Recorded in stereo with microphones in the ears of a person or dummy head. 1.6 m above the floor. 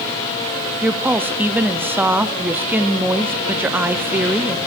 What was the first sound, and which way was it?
A woman speaking, 10° right (ahead or behind).